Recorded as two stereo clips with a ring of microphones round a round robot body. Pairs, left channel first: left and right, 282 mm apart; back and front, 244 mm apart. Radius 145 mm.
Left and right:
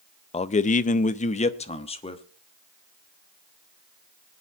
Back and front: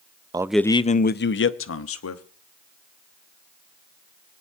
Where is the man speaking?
50° left, 0.5 m; by 2.2 s 160° left, 1.3 m.